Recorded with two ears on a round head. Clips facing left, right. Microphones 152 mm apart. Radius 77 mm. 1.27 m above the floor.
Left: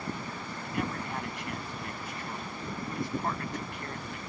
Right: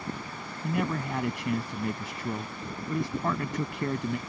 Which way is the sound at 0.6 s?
70° right (ahead or behind).